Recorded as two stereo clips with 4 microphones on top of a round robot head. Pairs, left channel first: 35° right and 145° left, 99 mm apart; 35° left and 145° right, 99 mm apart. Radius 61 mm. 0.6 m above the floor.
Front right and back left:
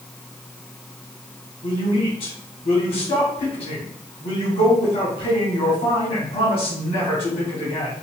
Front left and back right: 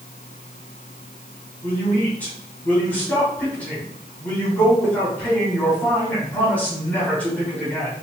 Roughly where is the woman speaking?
Ahead right.